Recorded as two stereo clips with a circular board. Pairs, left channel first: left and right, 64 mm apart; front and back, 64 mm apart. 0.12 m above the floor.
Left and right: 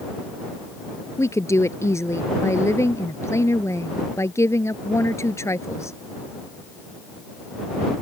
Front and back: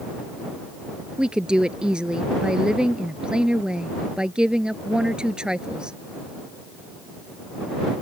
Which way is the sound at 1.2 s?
105° left.